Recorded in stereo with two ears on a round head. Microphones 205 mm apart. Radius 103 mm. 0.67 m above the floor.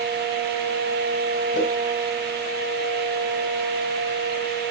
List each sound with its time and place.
1.5 s a whoosh: 45° left (ahead or behind), 3 m